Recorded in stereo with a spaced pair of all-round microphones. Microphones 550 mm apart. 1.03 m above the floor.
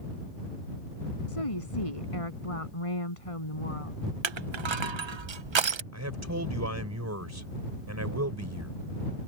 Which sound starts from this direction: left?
A woman speaking, at 1.3 s.